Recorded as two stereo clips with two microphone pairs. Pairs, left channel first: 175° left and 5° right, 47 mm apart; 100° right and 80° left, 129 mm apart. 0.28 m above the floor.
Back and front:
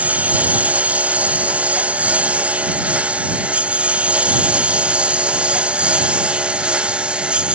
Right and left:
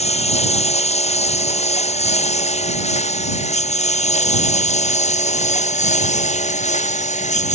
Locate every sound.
0.0 s a lawn mower: 65° right; by 7.5 s 70° right